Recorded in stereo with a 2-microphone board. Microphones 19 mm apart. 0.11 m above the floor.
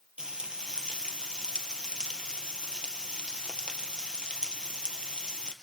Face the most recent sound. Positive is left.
turn(degrees=-50)  # may be behind; listen again after turning